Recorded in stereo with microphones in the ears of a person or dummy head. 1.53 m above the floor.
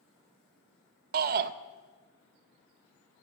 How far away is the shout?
About 0.6 m.